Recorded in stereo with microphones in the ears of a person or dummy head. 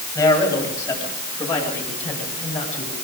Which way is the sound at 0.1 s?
20° left (ahead or behind).